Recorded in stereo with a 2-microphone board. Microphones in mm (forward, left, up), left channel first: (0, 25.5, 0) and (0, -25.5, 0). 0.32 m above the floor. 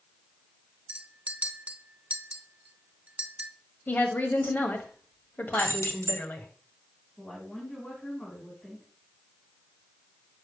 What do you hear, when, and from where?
0.9 s a clink: 25° right (ahead or behind), 0.8 m
3.9 s a woman speaking: 35° left (ahead or behind), 1.6 m
5.6 s keys jangling: 65° left (ahead or behind), 1.8 m
7.2 s a woman speaking: 10° left (ahead or behind), 3.5 m